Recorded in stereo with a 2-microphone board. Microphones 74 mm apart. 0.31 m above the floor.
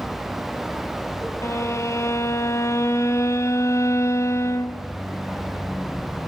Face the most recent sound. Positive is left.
turn(degrees=40)  # may be behind; listen again after turning